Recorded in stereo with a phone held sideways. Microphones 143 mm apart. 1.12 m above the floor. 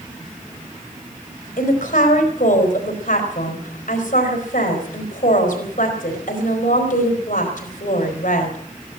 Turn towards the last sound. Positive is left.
turn(degrees=70)  # may be behind; listen again after turning